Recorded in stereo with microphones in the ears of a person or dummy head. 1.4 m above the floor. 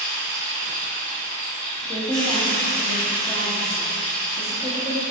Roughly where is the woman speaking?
Centre.